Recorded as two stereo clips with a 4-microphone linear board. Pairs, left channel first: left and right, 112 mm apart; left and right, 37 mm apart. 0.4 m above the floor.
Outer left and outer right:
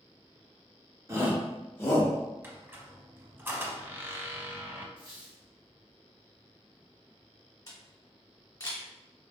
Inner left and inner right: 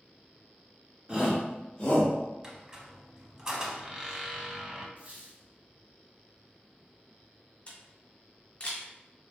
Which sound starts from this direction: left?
A camera shutter, at 7.7 s.